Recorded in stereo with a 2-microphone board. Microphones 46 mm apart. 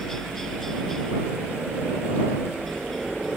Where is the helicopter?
10° left (ahead or behind); by 3.4 s 5° left (ahead or behind).